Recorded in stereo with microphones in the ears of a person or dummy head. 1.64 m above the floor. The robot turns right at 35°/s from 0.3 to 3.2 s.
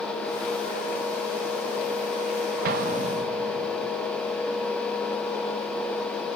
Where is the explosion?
50° right (ahead or behind), 0.8 m; by 3.9 s 30° right (ahead or behind), 0.8 m.